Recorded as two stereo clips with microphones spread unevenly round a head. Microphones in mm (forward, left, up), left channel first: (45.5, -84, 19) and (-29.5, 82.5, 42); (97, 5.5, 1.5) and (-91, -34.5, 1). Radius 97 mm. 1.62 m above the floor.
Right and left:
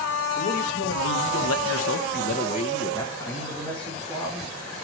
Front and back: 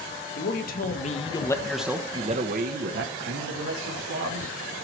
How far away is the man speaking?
About 1.8 m.